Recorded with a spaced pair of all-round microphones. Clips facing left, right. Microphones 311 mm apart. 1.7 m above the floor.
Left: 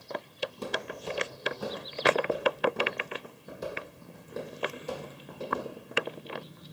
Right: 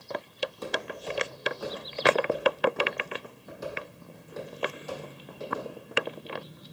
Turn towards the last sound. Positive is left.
turn(degrees=40)  # may be behind; listen again after turning